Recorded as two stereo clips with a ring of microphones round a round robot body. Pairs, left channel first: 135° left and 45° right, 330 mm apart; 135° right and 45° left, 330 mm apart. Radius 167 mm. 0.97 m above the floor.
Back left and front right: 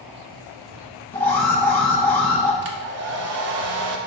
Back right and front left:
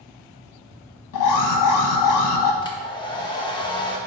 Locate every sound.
1.1 s an alarm: 140° right, 1.0 m
2.6 s a hair dryer: 65° right, 0.7 m